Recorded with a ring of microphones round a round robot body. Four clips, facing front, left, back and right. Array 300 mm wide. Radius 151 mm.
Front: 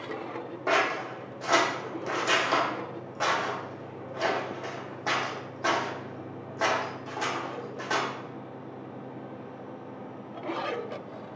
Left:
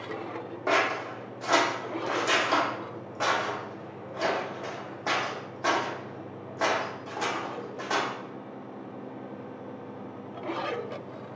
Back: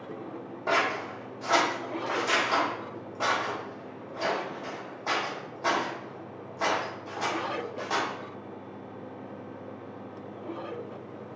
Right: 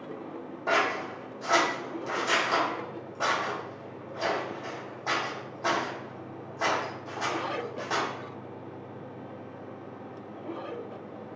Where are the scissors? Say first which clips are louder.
Left 1 dB, front 1 dB; 50° left, 1.0 m.